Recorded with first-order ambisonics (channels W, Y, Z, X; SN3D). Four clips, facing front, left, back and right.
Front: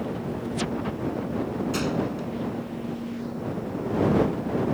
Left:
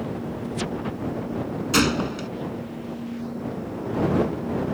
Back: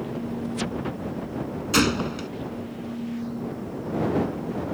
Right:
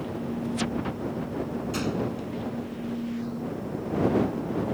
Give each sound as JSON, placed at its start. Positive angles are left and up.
{"t": 1.7, "sound": "a gunshot", "azimuth_deg": 130}